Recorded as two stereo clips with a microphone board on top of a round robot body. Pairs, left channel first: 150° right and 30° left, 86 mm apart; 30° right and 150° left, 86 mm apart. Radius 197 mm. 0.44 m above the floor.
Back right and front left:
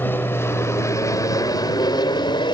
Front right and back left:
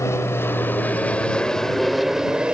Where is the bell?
No bell in this recording.